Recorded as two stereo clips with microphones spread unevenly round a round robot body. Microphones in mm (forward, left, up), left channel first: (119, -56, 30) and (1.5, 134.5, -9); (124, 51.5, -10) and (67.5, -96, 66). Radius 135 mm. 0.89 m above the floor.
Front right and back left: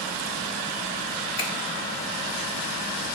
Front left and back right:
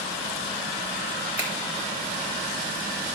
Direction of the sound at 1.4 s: 25° right.